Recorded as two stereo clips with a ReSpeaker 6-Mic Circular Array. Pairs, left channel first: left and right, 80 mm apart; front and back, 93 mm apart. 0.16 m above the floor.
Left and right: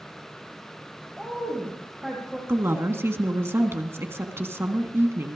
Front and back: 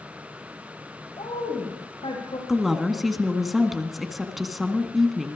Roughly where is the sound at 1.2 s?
Ahead.